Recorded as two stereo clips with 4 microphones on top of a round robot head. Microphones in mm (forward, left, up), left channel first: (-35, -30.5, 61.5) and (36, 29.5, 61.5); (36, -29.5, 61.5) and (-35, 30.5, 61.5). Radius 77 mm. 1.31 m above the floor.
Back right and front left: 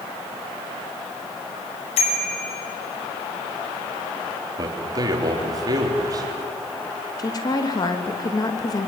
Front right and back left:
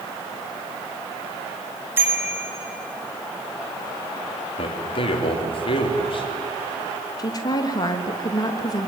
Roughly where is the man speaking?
Ahead.